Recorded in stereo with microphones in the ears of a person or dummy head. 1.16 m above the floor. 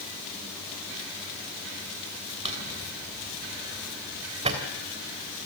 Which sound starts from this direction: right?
A drawer, at 2.5 s.